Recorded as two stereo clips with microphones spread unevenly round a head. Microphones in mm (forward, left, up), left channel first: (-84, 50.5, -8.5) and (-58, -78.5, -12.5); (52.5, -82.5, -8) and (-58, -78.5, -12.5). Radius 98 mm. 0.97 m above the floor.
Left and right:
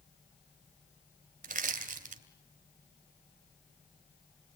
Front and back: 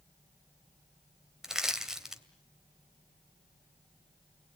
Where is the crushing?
95° right, 2.5 m.